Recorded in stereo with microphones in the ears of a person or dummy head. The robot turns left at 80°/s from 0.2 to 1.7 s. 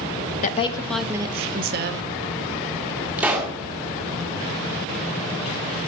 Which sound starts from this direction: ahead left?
A woman speaking, at 0.4 s.